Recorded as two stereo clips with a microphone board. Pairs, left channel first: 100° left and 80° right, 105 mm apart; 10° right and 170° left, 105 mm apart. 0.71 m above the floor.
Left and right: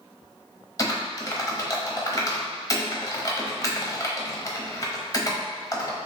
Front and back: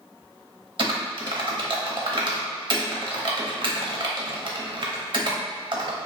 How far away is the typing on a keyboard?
About 0.7 m.